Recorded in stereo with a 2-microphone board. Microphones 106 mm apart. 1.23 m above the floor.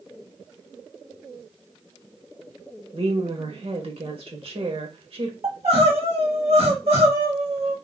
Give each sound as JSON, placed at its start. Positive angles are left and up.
{"t": 2.9, "sound": "a woman speaking", "side_deg": -60, "distance_m": 1.3}
{"t": 5.4, "sound": "crying", "side_deg": -70, "distance_m": 1.4}